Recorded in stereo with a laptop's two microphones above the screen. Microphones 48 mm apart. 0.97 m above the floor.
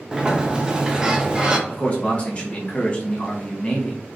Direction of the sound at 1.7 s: 30° left (ahead or behind).